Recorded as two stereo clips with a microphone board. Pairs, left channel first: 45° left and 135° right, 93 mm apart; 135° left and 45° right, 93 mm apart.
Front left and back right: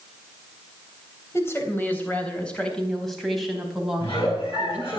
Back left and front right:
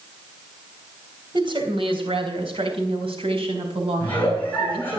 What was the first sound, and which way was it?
A woman speaking, 15° right.